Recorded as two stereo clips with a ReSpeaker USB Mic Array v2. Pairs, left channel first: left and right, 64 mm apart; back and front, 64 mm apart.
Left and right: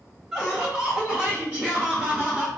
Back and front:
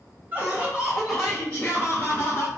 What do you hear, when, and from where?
0.3 s laughter: 15° right, 1.3 m; by 2.5 s 165° right, 1.5 m